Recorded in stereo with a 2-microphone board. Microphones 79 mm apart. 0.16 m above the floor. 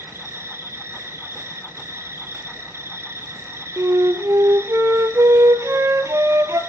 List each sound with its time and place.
0.0 s an insect: 35° right (ahead or behind), 1.0 m
3.8 s a flute: 40° right (ahead or behind), 0.6 m